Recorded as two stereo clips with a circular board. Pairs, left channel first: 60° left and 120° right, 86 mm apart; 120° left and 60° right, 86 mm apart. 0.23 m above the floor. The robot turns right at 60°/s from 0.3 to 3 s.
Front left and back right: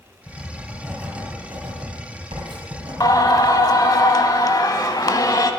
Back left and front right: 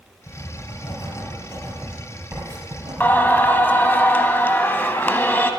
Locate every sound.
0.3 s writing: 115° left, 3.5 m; by 3.5 s 85° right, 3.5 m
3.0 s singing: 60° left, 0.7 m